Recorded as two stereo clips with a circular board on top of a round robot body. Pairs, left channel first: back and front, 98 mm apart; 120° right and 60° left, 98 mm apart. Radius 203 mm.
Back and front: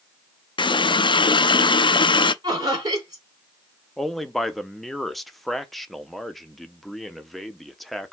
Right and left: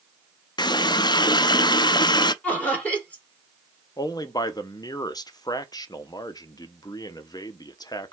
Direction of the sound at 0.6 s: 155° right.